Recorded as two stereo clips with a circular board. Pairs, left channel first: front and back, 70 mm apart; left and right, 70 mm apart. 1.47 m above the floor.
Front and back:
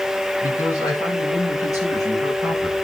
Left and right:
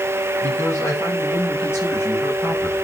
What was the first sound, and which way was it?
A man speaking, 35° left.